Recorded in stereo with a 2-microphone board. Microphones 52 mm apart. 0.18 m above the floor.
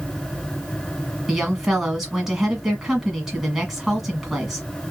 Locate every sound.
1.3 s a woman speaking: 5° right (ahead or behind), 1.3 m